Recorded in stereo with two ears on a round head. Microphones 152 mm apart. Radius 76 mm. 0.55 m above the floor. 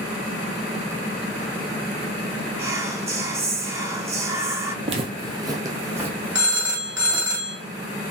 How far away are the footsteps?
About 1.0 m.